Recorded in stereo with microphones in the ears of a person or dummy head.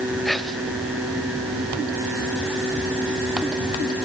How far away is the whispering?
About 1.2 m.